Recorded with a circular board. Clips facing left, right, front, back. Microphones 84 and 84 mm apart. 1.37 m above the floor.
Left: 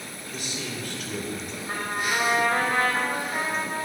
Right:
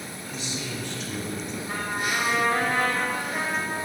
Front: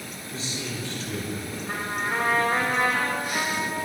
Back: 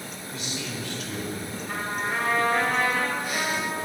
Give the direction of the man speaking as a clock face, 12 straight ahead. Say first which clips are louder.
Even, front 1 dB; 10 o'clock.